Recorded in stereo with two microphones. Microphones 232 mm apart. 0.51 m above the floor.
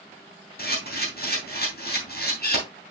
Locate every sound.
0.6 s a camera shutter: 45° left (ahead or behind), 3.5 m